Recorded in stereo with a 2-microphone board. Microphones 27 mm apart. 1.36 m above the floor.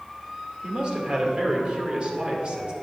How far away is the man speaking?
About 2 m.